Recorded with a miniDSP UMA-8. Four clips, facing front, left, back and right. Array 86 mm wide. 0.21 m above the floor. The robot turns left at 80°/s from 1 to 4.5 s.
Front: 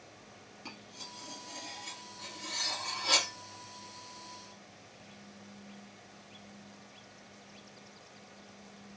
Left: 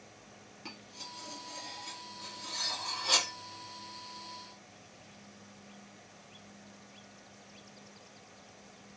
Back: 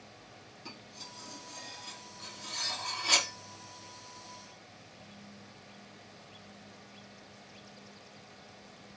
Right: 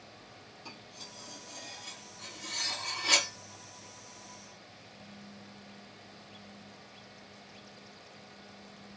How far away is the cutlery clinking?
About 1.9 m.